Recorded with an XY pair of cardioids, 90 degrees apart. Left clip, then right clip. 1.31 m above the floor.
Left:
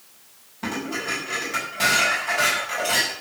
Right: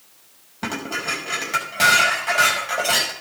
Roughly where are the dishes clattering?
Ahead right.